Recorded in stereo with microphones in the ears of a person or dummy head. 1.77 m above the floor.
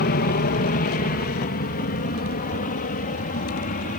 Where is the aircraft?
45° left (ahead or behind).